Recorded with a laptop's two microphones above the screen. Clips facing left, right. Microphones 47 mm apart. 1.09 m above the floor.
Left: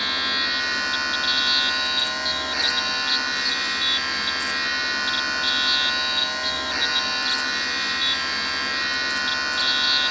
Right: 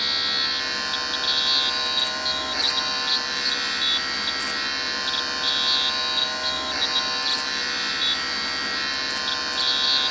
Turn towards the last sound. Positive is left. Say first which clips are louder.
# left 2 dB
turn(degrees=35)  # may be behind; listen again after turning